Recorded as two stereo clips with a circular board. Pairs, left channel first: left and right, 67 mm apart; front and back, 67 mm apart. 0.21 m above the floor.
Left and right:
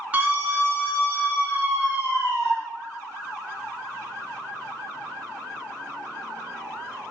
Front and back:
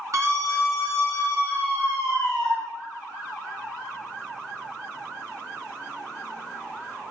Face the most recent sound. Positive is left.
turn(degrees=-145)